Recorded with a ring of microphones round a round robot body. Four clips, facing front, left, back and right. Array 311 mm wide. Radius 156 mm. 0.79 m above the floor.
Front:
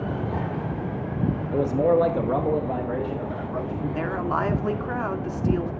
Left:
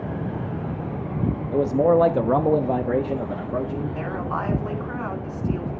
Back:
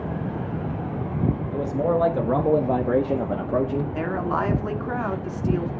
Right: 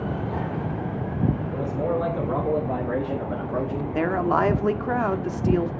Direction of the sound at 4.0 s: 90° right.